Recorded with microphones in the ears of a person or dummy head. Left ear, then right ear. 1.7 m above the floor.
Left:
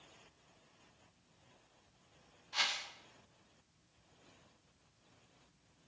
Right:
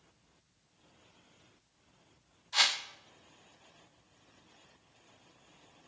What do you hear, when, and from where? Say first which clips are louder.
2.5 s a whoosh: right 7 dB; 25° right (ahead or behind), 0.8 m